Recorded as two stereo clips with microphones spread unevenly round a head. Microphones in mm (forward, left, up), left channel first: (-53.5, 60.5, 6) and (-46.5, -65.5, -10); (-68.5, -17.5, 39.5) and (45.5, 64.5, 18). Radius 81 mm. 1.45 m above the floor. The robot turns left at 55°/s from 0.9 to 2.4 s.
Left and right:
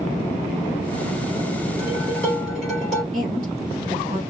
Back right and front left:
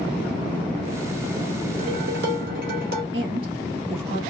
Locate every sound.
1.8 s dishes clattering: 40° left, 3 m; by 3.0 s 5° left, 3 m
3.1 s a woman speaking: 25° right, 2.5 m